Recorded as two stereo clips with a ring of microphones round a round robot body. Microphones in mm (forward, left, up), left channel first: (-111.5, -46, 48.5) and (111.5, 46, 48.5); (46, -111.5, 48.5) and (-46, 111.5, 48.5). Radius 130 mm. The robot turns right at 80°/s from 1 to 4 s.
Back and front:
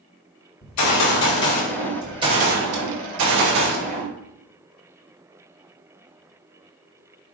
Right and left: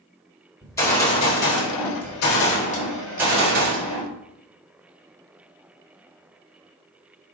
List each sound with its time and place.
0.6 s a gunshot: 145° right, 4 m; by 4.1 s 95° left, 4 m